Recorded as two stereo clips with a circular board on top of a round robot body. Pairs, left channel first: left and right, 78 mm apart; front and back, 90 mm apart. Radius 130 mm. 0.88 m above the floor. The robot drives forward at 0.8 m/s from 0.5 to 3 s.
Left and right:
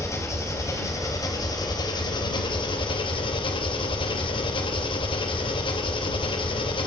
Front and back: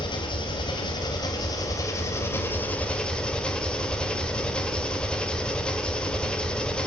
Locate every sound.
0.0 s an engine running: 40° left, 3 m; by 6.9 s 80° left, 1.8 m